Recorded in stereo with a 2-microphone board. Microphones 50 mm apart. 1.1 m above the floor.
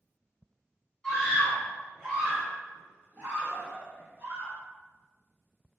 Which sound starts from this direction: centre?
A scream, at 1.0 s.